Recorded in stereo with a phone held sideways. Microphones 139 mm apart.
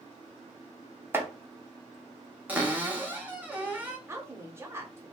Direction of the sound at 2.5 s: 15° right (ahead or behind).